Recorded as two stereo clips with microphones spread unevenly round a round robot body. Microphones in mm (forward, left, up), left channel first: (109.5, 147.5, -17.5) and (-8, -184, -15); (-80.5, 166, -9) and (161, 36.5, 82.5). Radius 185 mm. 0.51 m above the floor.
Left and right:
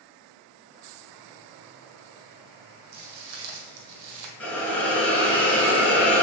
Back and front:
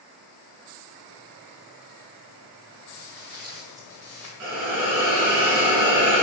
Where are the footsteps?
100° right, 1.8 m.